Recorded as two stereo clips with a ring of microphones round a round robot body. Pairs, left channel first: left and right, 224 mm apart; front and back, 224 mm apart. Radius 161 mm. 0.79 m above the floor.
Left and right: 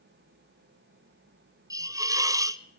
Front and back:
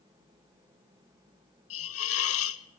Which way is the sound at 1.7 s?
15° right.